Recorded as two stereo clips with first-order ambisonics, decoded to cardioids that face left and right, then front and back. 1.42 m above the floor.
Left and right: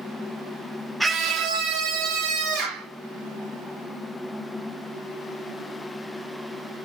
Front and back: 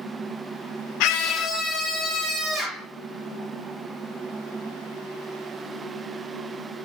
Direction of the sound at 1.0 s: 5° right.